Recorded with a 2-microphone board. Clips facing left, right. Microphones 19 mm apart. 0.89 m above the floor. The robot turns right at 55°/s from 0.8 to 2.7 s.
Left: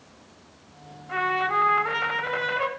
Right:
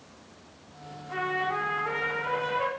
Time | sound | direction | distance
1.1 | a trumpet | 40° left | 1.3 m